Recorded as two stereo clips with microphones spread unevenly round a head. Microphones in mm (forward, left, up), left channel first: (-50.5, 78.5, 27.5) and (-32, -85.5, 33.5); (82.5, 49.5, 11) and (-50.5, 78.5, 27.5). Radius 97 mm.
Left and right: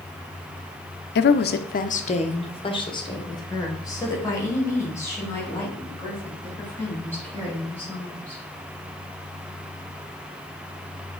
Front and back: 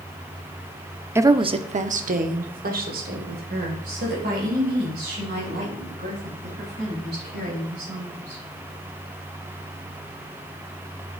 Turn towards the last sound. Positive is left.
turn(degrees=175)